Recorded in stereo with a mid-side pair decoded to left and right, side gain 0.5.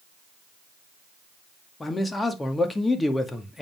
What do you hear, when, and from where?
1.8 s a man speaking: 20° left, 2 m